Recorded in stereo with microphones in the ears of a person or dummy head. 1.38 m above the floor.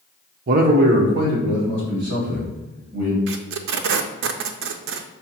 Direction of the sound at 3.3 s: 55° right (ahead or behind).